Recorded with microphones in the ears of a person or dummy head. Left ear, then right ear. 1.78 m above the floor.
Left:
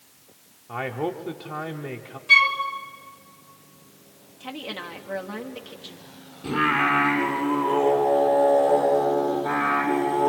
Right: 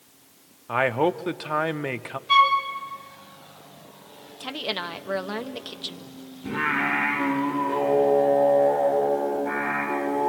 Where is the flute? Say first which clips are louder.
Left 1 dB; 25° left (ahead or behind), 2 m.